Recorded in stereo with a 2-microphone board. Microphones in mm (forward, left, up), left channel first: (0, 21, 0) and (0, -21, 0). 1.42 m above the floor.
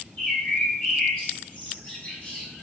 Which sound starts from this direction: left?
A bird, at 0.2 s.